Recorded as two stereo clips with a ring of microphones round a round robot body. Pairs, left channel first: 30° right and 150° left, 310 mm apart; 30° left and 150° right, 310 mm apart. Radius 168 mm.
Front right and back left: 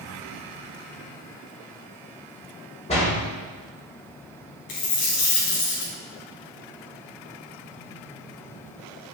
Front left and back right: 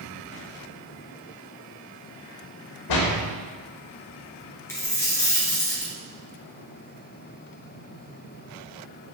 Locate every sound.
2.9 s a door slam: 40° left, 2.0 m
4.7 s a dropped coin: 50° right, 3 m